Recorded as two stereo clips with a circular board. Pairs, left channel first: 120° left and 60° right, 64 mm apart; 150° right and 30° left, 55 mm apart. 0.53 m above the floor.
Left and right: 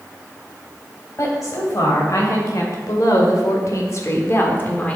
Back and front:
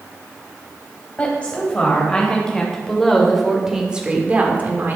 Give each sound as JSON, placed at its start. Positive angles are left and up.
{"t": 1.2, "sound": "a woman speaking", "azimuth_deg": 145, "distance_m": 3.0}